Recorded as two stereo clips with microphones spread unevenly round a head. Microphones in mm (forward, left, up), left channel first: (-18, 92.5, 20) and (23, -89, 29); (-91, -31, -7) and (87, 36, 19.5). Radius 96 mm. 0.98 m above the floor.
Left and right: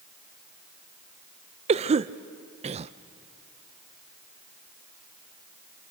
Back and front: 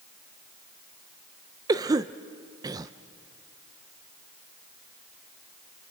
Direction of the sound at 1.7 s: 50° right.